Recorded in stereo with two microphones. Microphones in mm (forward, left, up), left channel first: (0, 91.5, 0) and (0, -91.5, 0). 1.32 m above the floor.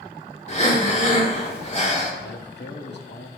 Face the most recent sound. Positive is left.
turn(degrees=70)  # may be behind; listen again after turning